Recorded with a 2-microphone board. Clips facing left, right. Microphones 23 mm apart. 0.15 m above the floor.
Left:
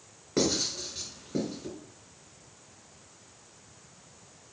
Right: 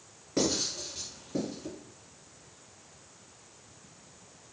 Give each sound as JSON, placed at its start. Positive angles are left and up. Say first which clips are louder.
{"t": 0.4, "sound": "writing", "louder": "left 2 dB", "side_deg": 20, "distance_m": 1.6}